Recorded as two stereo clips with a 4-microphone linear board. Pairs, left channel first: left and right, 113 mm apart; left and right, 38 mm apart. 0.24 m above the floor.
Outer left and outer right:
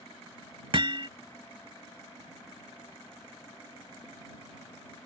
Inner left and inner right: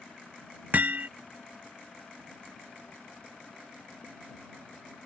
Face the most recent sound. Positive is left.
turn(degrees=-50)  # may be behind; listen again after turning